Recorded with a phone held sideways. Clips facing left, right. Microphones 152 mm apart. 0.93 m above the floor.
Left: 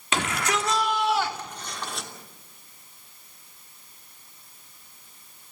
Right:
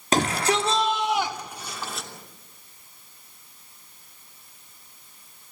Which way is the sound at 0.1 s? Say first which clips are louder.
Right 4 dB; 40° right (ahead or behind).